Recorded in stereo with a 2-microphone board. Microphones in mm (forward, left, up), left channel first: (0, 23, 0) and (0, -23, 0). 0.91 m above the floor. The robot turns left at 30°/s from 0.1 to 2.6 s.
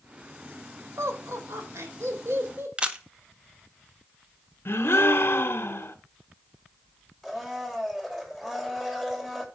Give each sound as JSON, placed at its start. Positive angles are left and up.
{"t": 1.0, "sound": "laughter", "azimuth_deg": -75, "distance_m": 3.5}
{"t": 2.8, "sound": "a camera shutter", "side_deg": -25, "distance_m": 1.0}
{"t": 4.7, "sound": "a gasp", "side_deg": 55, "distance_m": 1.0}
{"t": 7.2, "sound": "a blender", "side_deg": -5, "distance_m": 2.5}